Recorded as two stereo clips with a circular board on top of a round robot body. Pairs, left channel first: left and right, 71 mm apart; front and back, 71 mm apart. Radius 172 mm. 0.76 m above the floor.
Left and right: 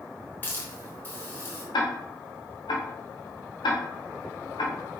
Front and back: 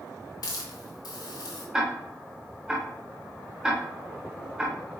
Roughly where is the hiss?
Ahead left.